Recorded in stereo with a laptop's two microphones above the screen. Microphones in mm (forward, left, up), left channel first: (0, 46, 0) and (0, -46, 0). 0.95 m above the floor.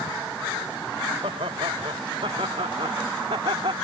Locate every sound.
1.2 s laughter: 85° right; by 3.7 s 70° right (ahead or behind)